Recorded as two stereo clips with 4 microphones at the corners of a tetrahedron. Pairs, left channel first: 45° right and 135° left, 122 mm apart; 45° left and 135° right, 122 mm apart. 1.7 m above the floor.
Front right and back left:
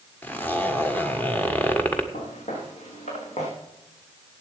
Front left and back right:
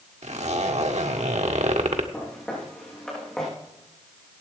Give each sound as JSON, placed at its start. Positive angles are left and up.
{"t": 0.2, "sound": "a zipper", "azimuth_deg": -120, "distance_m": 1.4}
{"t": 2.1, "sound": "footsteps", "azimuth_deg": -40, "distance_m": 7.5}